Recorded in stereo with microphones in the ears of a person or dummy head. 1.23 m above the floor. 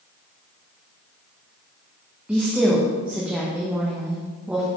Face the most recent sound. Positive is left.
turn(degrees=-5)  # may be behind; listen again after turning